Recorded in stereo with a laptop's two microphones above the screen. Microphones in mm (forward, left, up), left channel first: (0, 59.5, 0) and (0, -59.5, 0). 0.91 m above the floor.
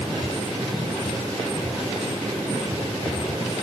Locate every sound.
Only background noise.